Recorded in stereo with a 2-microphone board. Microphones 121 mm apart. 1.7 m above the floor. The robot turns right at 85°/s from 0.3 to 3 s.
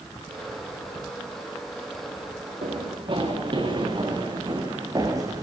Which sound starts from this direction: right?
Running footsteps, at 2.6 s.